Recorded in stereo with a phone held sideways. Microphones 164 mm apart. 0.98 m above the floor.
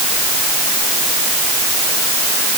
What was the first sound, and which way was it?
Only background noise.